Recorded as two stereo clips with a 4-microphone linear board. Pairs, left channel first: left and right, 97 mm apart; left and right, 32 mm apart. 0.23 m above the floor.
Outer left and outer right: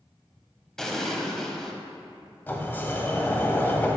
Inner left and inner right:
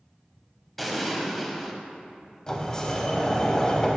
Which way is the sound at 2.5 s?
20° left (ahead or behind).